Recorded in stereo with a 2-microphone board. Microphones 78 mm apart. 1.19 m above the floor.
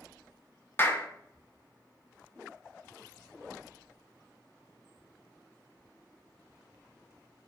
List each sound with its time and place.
0.8 s a clap: 30° left (ahead or behind), 0.8 m